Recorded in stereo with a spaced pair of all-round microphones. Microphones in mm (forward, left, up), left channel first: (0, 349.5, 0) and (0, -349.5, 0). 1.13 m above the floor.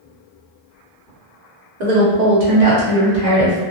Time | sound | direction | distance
1.8 | a woman speaking | 75° right (ahead or behind) | 0.9 m